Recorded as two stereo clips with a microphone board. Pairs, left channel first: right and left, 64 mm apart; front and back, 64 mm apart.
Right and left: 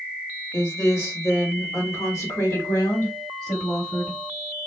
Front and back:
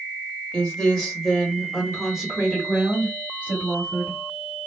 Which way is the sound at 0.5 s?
70° right.